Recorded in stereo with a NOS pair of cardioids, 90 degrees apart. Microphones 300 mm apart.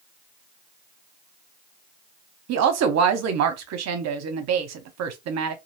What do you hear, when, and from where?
2.5 s a woman speaking: 65° right, 0.8 m